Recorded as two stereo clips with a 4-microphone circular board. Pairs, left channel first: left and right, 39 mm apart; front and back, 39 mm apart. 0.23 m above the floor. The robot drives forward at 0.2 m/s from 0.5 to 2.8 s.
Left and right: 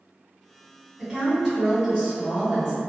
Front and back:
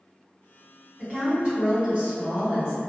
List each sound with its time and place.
1.0 s a woman speaking: 160° right, 1.8 m; by 2.8 s 165° right, 2 m